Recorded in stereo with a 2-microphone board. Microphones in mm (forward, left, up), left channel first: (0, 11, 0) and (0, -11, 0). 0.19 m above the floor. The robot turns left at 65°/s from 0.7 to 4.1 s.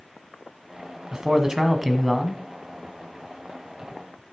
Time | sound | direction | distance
1.1 | a man speaking | 115° right | 1.3 m